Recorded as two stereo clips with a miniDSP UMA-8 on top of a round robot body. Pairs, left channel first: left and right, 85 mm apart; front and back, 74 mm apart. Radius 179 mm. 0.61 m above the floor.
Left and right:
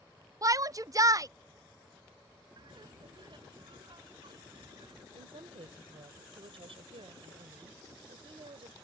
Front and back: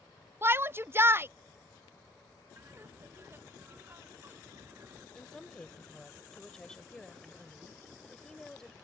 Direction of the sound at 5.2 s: 80° right.